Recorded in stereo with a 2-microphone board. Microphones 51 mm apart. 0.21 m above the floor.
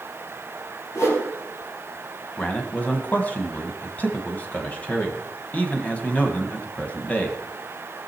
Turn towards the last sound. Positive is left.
turn(degrees=30)  # may be behind; listen again after turning